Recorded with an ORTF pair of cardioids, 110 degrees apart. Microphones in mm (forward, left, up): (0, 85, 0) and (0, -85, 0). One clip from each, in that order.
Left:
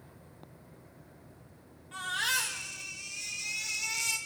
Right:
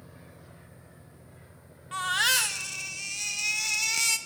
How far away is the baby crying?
About 2 m.